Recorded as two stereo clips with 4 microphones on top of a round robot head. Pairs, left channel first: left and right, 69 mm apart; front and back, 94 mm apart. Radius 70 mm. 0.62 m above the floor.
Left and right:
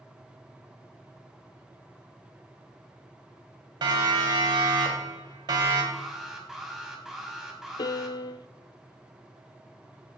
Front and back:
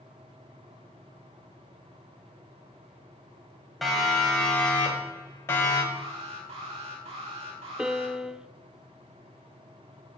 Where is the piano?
95° left, 0.5 m.